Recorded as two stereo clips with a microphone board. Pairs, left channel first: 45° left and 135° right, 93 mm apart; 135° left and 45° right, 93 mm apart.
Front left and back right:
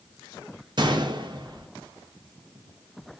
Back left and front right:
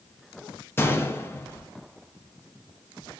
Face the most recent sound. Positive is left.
turn(degrees=-165)